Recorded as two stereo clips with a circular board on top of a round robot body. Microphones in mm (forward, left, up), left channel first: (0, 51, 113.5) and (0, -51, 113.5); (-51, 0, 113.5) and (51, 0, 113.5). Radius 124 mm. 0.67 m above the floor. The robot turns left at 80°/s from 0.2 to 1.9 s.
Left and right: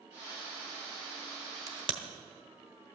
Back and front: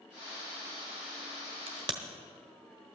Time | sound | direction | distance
1.7 | a crack | 30° right | 0.9 m